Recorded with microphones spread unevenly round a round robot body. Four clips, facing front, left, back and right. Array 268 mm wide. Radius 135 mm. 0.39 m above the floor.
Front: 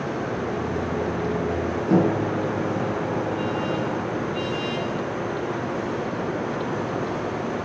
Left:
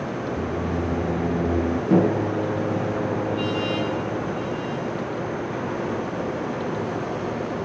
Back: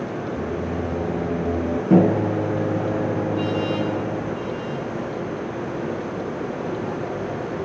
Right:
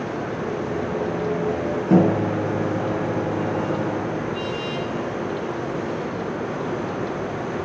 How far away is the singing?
About 3 m.